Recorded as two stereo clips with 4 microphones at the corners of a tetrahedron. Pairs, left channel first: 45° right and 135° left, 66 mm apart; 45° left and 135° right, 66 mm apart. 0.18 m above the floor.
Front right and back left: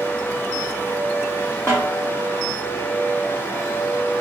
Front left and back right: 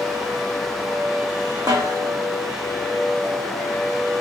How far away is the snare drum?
About 3 m.